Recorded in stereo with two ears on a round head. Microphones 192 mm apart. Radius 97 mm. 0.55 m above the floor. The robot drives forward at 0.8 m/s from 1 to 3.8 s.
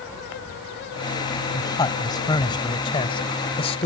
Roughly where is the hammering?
No hammering in this recording.